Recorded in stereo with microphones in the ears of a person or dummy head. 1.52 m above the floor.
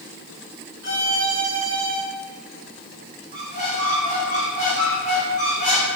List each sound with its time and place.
0.8 s a violin: 50° left (ahead or behind), 2.5 m
3.3 s a squeak: 40° left (ahead or behind), 4 m